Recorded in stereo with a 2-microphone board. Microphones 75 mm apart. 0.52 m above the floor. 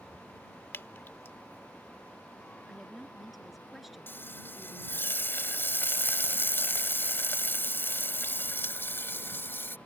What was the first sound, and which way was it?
Dripping, 35° left (ahead or behind).